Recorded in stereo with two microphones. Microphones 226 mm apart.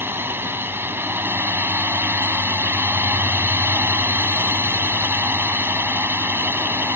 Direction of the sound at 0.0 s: 10° right (ahead or behind).